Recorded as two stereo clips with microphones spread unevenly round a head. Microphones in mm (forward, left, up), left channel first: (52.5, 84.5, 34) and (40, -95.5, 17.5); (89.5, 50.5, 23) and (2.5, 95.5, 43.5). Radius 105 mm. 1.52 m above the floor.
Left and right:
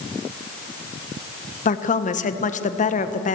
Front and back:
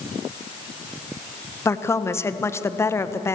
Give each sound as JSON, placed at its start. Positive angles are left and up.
{"t": 1.6, "sound": "a woman speaking", "azimuth_deg": 35, "distance_m": 1.4}